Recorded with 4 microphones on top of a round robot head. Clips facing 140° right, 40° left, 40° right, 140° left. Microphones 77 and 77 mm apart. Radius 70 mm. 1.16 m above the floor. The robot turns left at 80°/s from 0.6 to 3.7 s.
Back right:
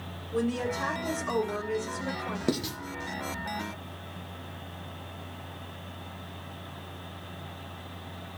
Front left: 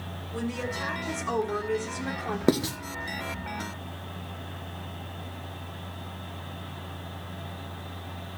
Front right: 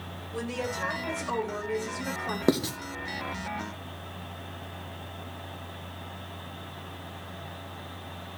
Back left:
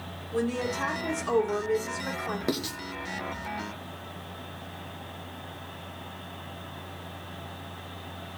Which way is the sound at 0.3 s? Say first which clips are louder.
Back right 3 dB, back left 4 dB; straight behind.